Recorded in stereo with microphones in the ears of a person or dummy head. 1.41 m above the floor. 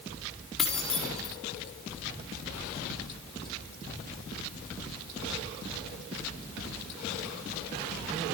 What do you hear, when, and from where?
0.6 s keys jangling: 10° left (ahead or behind), 2 m